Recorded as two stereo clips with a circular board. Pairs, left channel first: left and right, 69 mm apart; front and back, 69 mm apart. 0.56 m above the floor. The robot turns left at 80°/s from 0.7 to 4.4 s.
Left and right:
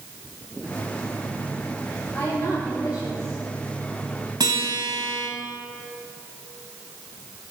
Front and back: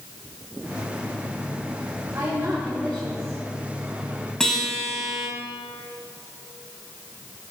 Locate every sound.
2.1 s a woman speaking: 135° left, 3.5 m; by 3.4 s 35° left, 3.5 m
4.4 s a guitar: 80° right, 3 m